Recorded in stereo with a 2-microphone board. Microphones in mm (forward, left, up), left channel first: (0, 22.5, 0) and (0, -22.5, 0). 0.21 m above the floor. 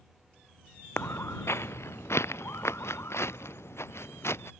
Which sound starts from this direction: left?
Footsteps, at 1.0 s.